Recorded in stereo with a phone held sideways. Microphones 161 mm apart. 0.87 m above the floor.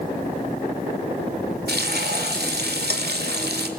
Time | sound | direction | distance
1.7 | frying | 90° right | 1.7 m